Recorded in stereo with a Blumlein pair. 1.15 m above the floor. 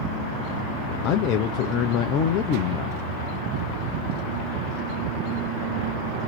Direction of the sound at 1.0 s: 35° left.